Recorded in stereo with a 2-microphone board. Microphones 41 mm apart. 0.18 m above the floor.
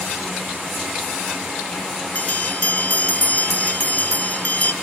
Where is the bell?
40° left (ahead or behind), 1.0 m.